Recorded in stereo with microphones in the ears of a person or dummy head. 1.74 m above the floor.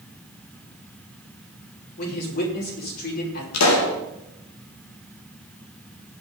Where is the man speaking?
50° left (ahead or behind), 5.5 m.